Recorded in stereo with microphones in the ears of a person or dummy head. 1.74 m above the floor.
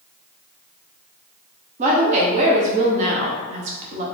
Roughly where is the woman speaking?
Right.